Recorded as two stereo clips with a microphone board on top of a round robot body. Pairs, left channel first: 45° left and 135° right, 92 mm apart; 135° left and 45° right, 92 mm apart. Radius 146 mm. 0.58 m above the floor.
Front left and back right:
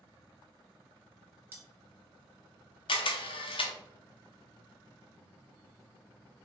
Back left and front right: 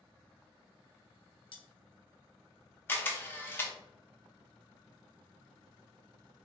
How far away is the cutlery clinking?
About 0.9 m.